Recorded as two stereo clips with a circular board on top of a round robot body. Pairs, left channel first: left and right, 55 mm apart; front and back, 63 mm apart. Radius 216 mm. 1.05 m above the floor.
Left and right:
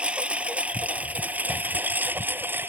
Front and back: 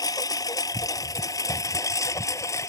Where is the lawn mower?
20° right; by 2.7 s 40° right.